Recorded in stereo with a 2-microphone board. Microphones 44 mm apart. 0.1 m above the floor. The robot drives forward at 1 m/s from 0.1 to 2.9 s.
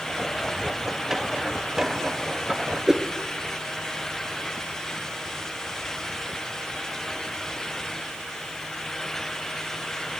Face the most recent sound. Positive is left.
turn(degrees=-10)  # may be behind; listen again after turning